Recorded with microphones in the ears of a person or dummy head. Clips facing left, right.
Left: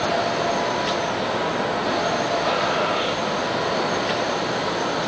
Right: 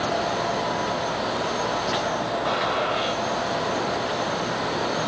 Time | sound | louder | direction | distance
2.5 | a gunshot | left 3 dB | 30° left (ahead or behind) | 3.5 m